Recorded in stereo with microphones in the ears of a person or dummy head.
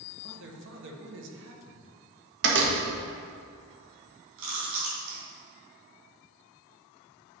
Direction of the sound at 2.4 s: 60° right (ahead or behind).